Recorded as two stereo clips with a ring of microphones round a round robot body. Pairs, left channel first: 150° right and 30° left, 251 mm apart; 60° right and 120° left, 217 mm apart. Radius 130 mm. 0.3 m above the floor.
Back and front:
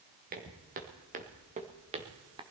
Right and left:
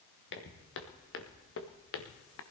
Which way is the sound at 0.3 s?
25° right.